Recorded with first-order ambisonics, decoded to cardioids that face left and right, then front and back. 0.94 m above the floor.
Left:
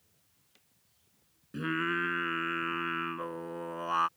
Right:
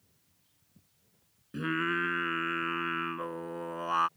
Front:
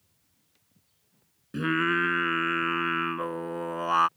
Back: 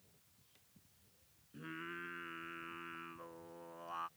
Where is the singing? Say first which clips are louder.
Right 1 dB, front 22 dB; 5° right.